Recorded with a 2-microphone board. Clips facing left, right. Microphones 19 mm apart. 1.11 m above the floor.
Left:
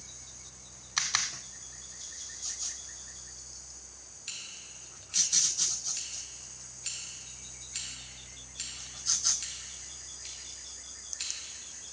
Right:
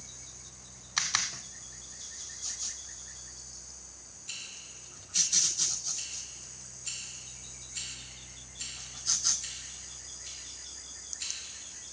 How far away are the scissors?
About 3 m.